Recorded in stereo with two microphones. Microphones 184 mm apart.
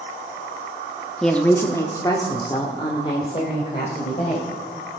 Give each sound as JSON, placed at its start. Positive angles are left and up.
{"t": 1.2, "sound": "a woman speaking", "side_deg": 0, "distance_m": 0.8}